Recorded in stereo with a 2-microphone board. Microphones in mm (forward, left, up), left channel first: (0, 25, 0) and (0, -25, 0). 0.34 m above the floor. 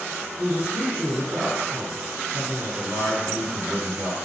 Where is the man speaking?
45° right (ahead or behind), 2 m.